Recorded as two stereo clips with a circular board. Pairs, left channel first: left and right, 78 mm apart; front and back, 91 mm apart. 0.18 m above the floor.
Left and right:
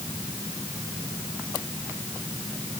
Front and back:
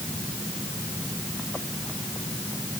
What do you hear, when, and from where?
Only background noise.